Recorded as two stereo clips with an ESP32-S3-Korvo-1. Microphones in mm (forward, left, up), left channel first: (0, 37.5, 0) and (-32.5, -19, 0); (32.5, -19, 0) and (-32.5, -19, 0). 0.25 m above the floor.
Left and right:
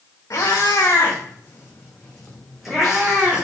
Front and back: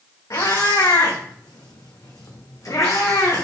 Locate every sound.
0.3 s a cat meowing: 25° left, 2.5 m; by 3.5 s 55° right, 2.0 m